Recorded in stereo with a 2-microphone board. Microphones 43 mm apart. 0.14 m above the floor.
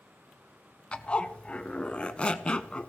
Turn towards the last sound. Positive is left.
turn(degrees=25)  # may be behind; listen again after turning